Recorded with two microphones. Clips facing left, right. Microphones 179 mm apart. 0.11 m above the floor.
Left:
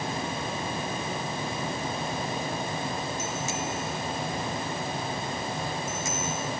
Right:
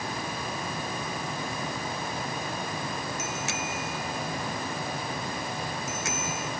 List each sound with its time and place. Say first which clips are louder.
3.2 s a bicycle bell: left 2 dB; 70° right (ahead or behind)